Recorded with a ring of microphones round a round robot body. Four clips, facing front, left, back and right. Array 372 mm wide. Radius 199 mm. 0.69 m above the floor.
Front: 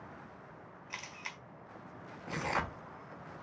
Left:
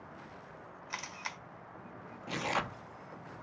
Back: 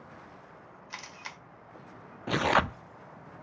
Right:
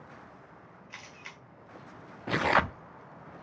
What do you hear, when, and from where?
0.9 s a camera shutter: 110° left, 1.7 m
2.3 s tearing paper: 145° right, 0.6 m